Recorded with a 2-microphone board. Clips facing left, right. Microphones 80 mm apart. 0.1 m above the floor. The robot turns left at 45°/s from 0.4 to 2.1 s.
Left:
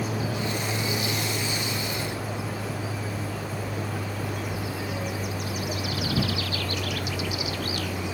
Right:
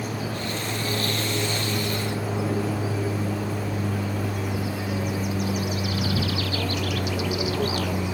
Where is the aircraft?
10° left (ahead or behind); by 8.1 s 60° right (ahead or behind).